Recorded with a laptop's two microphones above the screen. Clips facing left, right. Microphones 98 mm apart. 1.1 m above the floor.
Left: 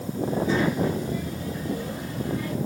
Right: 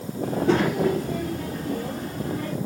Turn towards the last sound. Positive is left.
turn(degrees=-35)  # may be behind; listen again after turning